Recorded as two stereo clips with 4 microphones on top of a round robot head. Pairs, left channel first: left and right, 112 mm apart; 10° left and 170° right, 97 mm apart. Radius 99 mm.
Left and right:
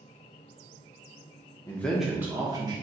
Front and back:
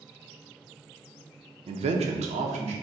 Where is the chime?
No chime in this recording.